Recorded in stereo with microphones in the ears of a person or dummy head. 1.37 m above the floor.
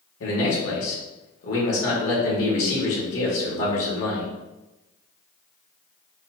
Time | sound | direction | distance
0.2 | a man speaking | 75° left (ahead or behind) | 1.5 m